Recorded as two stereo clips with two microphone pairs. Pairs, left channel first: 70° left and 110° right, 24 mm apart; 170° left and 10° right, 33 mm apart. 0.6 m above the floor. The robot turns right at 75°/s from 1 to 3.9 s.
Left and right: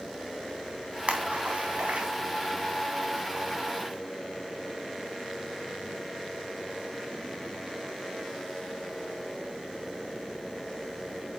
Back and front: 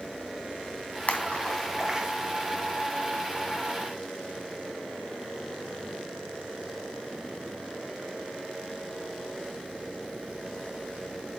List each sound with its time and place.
1.1 s a splash: 150° right, 3 m; by 2.1 s 75° right, 3 m